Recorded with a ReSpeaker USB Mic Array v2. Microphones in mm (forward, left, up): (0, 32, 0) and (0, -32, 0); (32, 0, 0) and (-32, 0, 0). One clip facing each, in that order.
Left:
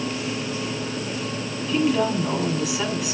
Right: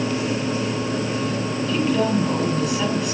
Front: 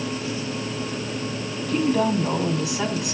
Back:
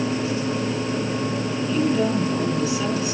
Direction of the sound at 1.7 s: 5° left.